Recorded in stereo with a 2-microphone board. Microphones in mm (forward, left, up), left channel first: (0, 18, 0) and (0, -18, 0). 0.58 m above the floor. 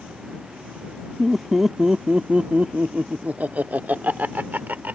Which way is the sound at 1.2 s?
5° left (ahead or behind).